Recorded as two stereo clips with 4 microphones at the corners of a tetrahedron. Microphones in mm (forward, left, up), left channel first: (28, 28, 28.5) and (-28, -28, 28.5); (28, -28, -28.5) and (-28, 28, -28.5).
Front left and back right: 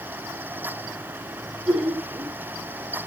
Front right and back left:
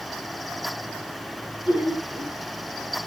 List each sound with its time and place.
1.7 s laughter: 65° right, 9.5 m